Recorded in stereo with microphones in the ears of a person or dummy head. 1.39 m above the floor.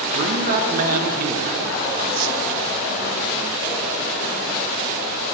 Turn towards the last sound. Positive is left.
turn(degrees=-50)  # may be behind; listen again after turning